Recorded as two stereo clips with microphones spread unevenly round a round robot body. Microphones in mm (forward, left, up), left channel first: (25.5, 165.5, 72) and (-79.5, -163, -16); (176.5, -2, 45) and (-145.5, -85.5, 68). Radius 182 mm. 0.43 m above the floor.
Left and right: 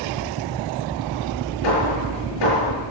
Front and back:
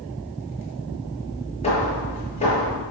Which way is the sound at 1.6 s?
90° left.